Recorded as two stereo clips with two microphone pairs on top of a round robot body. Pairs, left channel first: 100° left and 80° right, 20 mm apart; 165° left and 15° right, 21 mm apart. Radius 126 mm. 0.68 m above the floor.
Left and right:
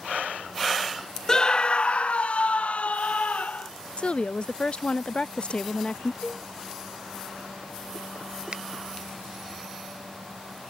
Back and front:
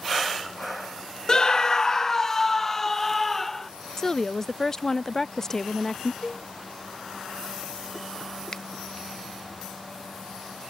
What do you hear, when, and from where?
1.3 s a scream: 140° left; by 3.7 s 90° left
4.0 s a woman speaking: 100° left
6.2 s a cowbell: 115° left
8.5 s a finger snap: 125° right